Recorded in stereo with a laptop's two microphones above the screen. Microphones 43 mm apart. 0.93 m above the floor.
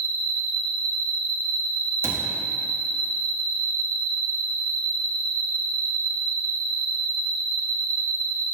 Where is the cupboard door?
75° right (ahead or behind), 0.9 m.